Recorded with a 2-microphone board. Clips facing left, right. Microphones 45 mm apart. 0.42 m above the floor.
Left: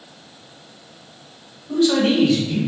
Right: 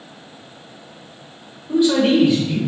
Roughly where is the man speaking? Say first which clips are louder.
Right 2 dB; centre.